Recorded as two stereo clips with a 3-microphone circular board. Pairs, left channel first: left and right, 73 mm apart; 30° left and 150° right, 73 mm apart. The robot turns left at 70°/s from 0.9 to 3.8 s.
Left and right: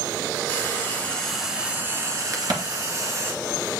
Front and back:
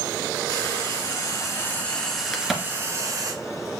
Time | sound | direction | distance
0.5 | frying | 30° left | 2.5 m
2.3 | a crack | 50° right | 1.9 m